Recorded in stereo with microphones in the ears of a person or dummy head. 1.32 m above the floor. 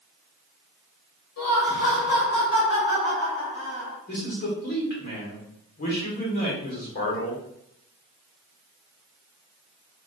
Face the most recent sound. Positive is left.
turn(degrees=45)  # may be behind; listen again after turning